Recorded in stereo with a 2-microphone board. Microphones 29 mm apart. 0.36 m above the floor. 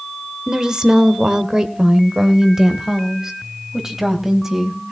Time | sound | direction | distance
0.5 | a woman speaking | 20° right (ahead or behind) | 1.5 m